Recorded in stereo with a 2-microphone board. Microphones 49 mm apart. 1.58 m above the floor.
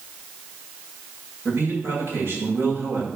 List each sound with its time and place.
1.4 s a man speaking: 55° right (ahead or behind), 8 m